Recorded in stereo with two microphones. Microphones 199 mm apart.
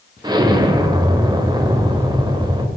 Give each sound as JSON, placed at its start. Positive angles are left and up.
{"t": 0.2, "sound": "an explosion", "side_deg": -20, "distance_m": 0.6}